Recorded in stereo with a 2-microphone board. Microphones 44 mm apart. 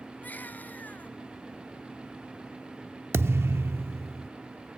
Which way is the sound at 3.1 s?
65° right (ahead or behind).